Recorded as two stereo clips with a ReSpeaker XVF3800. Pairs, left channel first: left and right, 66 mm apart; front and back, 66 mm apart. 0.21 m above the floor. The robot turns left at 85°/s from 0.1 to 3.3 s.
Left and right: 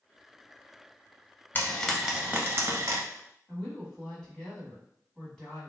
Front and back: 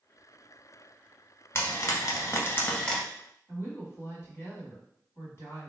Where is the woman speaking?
20° left, 1.4 m.